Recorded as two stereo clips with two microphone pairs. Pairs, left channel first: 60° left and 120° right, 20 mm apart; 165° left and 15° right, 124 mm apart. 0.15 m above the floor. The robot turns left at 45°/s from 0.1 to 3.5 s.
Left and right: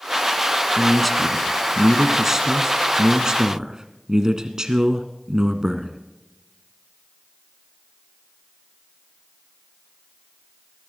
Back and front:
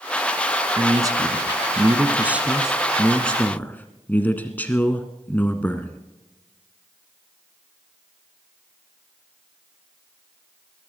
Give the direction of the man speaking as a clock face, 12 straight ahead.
12 o'clock.